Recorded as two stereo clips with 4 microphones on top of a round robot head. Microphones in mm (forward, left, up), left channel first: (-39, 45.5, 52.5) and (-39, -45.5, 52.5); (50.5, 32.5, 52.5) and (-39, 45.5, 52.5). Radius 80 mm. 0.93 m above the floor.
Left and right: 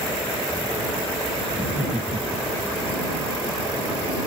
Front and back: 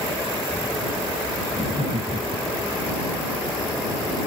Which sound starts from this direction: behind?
Laughter, at 1.5 s.